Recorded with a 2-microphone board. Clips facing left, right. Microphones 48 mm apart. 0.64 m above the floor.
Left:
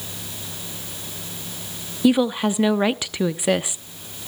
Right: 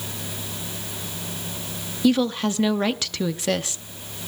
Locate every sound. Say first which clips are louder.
2.0 s a woman speaking: left 2 dB; 15° left (ahead or behind), 0.6 m